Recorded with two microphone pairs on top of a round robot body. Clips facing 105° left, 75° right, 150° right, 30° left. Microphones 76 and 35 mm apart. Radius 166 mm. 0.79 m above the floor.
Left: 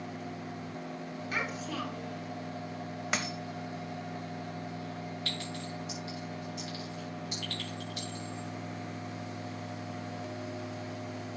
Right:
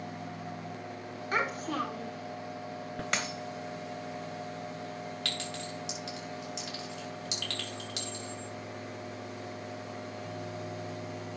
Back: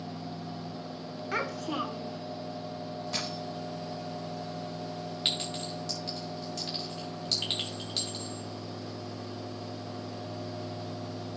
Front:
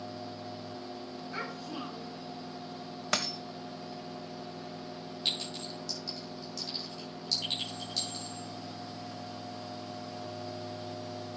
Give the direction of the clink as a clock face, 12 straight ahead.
3 o'clock.